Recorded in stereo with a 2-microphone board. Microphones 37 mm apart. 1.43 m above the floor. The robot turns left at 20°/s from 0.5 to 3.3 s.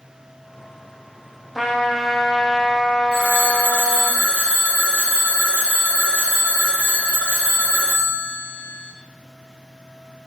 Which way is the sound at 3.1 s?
25° left (ahead or behind).